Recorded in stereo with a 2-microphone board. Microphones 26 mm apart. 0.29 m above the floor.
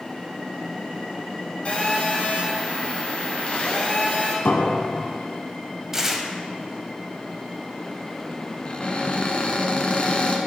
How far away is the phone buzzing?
About 2 m.